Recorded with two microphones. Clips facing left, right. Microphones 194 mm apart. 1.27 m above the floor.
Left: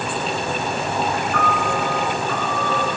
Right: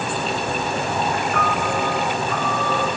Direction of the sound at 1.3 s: 45° right (ahead or behind).